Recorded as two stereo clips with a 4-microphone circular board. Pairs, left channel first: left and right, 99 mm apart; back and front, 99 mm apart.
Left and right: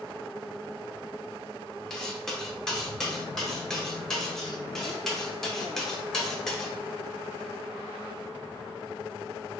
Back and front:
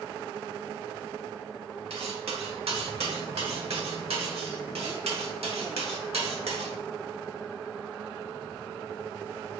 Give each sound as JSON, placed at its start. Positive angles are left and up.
{"t": 1.9, "sound": "cutlery clinking", "azimuth_deg": 5, "distance_m": 0.9}